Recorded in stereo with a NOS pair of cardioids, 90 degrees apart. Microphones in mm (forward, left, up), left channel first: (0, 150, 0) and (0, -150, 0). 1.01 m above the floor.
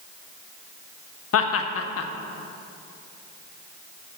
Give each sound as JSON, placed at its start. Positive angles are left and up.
{"t": 1.3, "sound": "laughter", "azimuth_deg": 60, "distance_m": 1.2}